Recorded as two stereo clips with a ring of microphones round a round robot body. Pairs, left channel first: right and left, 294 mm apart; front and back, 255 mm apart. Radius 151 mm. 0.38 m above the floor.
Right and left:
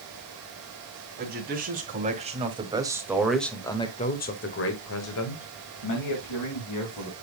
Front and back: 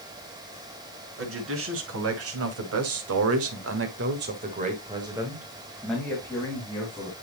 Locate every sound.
1.2 s a man speaking: 150° left, 3 m; by 7.1 s 75° right, 3 m